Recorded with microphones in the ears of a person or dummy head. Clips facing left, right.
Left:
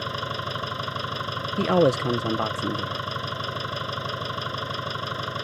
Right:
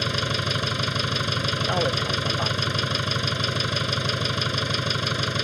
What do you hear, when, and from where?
0.0 s an engine running: 35° right (ahead or behind)
1.6 s a man speaking: 50° left (ahead or behind)